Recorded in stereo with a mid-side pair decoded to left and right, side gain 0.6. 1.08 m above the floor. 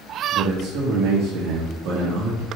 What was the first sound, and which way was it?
A man speaking, 65° right.